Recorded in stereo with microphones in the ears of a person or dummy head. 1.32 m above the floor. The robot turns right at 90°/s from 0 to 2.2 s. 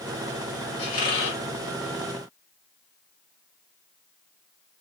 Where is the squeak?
35° left, 2 m; by 1.4 s 90° left, 2 m.